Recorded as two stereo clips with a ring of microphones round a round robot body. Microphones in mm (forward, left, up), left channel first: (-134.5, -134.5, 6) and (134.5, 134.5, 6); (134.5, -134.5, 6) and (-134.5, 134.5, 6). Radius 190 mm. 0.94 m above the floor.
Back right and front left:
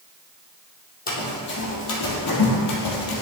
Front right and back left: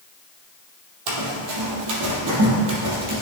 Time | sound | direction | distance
1.1 | running footsteps | 160° left | 2.5 m